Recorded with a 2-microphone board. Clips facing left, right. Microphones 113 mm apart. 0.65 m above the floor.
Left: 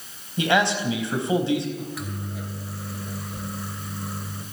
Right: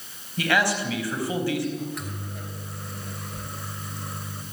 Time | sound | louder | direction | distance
0.4 | a man speaking | left 2 dB | 20° left (ahead or behind) | 4 m
1.8 | a microwave | even | centre (ahead or behind) | 3 m